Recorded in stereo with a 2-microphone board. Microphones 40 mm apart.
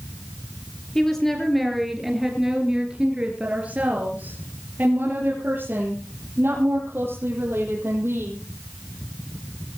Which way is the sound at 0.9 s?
10° left (ahead or behind).